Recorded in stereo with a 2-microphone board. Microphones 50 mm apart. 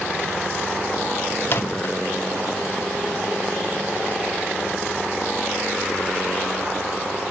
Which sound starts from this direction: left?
A microwave, at 1.4 s.